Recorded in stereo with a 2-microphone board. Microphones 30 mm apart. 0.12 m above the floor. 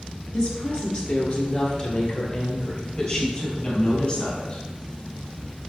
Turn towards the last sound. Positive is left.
turn(degrees=40)  # may be behind; listen again after turning